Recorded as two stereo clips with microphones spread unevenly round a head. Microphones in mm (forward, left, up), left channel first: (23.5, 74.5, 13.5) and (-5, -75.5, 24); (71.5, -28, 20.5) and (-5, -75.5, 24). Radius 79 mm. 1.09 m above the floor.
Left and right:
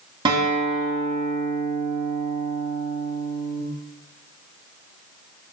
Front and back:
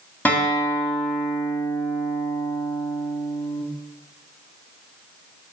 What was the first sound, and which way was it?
A guitar, 40° right.